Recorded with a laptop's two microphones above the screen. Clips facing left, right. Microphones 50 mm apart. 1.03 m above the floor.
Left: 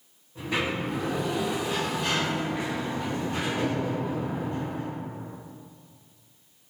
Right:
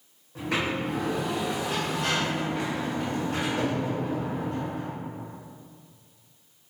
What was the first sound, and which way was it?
A sliding door, 75° right (ahead or behind).